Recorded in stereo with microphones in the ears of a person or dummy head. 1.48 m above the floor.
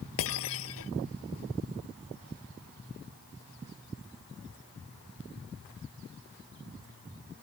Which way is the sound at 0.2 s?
75° left (ahead or behind).